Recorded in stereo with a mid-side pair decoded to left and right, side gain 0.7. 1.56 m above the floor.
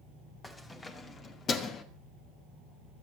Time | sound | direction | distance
0.4 | keys jangling | 20° left | 2.5 m